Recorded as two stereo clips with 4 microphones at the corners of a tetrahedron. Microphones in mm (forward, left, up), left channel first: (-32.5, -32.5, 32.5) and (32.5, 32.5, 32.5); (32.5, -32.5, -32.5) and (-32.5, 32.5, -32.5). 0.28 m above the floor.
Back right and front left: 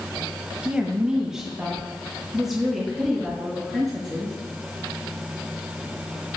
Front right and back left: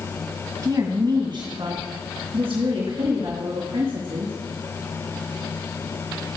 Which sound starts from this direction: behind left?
A woman speaking, at 0.6 s.